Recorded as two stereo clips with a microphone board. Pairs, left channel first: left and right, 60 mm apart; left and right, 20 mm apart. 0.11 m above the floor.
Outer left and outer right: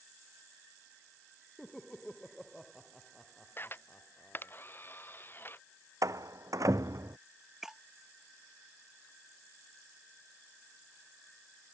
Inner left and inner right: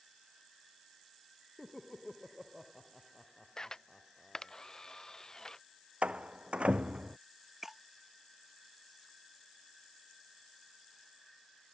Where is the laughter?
5° left (ahead or behind).